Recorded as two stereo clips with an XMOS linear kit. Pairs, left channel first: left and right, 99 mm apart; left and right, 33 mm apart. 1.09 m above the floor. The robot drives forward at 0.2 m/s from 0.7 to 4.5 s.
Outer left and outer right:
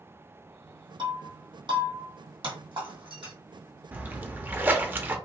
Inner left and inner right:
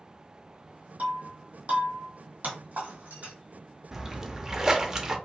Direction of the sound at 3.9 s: 15° right (ahead or behind).